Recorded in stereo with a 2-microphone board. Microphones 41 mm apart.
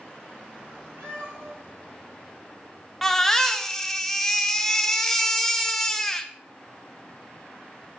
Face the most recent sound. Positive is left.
turn(degrees=5)  # may be behind; listen again after turning